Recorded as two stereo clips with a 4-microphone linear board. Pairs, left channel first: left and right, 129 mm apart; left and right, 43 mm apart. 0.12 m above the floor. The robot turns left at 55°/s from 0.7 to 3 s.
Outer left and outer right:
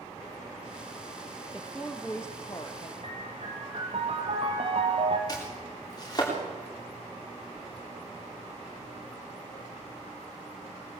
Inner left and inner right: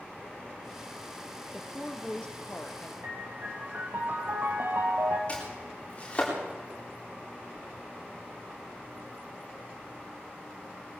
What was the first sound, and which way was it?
A woman speaking, 165° right.